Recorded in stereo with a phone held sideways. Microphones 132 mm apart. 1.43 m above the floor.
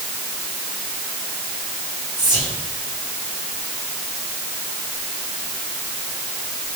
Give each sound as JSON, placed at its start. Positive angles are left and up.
{"t": 2.2, "sound": "whispering", "side_deg": -35, "distance_m": 3.5}